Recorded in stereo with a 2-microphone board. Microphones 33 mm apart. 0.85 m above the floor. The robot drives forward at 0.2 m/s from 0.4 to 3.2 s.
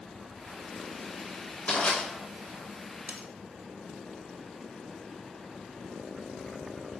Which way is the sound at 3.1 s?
75° right (ahead or behind).